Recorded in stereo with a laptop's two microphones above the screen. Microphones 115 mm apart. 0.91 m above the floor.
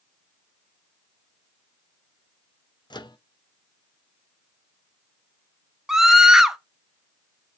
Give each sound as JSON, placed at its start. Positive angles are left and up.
{"t": 2.9, "sound": "a microwave", "side_deg": 40, "distance_m": 0.7}
{"t": 5.9, "sound": "a scream", "side_deg": -5, "distance_m": 0.7}